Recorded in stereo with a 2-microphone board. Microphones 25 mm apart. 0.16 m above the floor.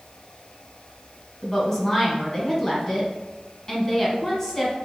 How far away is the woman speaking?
About 1.2 m.